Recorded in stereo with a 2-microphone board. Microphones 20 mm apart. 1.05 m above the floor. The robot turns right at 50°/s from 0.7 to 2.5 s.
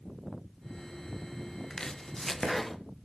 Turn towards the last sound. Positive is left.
turn(degrees=170)